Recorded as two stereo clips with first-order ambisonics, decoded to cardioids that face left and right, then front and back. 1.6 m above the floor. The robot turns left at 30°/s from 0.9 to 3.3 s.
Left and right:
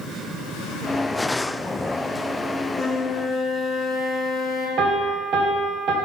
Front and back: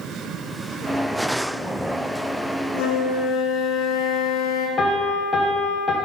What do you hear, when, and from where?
2.7 s a flute: 20° left, 1.1 m; by 4.7 s straight ahead, 1.1 m
4.8 s a piano: 60° right, 0.9 m